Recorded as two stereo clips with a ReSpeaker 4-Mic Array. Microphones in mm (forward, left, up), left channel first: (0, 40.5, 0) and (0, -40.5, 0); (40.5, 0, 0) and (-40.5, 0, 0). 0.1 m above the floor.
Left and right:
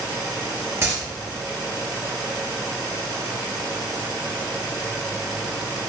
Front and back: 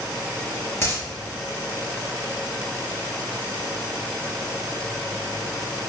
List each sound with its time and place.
0.8 s a dropped coin: 40° right, 0.9 m